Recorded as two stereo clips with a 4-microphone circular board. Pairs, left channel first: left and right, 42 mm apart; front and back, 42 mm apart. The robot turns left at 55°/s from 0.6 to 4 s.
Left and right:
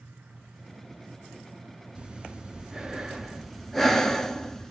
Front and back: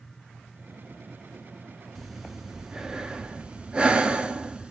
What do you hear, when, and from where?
1.9 s breathing: 90° right, 0.6 m; by 4.7 s 160° left, 0.6 m